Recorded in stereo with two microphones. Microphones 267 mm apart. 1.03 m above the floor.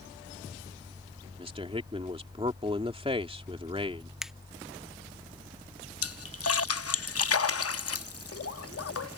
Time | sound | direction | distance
1.4 | a man speaking | 20° right (ahead or behind) | ?
4.2 | a finger snap | centre (ahead or behind) | ?
6.0 | a splash | 60° left (ahead or behind) | ?